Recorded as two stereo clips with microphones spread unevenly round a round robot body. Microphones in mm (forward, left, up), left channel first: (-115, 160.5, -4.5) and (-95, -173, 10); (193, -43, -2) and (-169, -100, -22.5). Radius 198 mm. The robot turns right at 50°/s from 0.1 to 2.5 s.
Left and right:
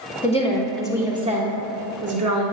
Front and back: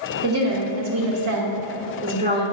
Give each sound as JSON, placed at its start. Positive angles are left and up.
{"t": 0.2, "sound": "a woman speaking", "azimuth_deg": 150, "distance_m": 1.5}